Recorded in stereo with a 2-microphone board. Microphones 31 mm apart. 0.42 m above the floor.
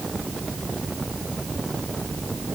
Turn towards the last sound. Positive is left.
No sound to turn to.